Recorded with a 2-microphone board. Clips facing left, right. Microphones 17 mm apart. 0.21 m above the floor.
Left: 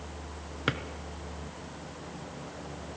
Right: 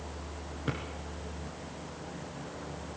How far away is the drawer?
About 1.6 m.